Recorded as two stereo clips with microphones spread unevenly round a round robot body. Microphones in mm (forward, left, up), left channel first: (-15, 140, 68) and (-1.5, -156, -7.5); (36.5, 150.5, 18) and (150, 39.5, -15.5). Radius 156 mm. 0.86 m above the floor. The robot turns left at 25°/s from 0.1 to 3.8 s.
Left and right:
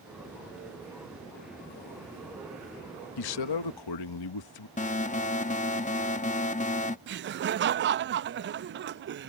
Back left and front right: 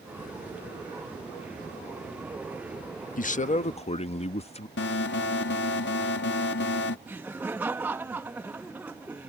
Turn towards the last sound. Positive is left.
turn(degrees=-115)